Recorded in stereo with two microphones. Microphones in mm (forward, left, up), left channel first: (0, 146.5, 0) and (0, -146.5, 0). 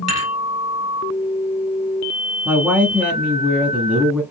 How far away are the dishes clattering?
About 2.5 m.